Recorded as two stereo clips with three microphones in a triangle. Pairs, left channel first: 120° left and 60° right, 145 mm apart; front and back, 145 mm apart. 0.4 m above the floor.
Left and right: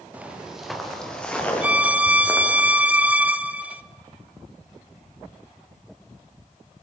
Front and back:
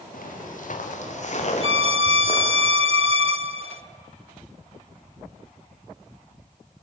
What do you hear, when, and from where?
0.1 s footsteps: 20° left, 3.5 m; by 2.6 s 50° left, 6.5 m
1.6 s a violin: 135° right, 0.6 m